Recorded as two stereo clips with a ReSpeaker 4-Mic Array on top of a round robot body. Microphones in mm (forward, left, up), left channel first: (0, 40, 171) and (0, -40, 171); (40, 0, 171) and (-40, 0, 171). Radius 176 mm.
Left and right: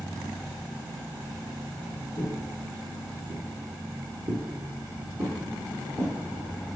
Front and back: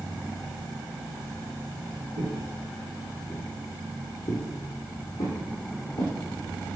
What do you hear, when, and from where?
2.2 s footsteps: 140° left, 1.0 m; by 6.1 s 45° right, 3 m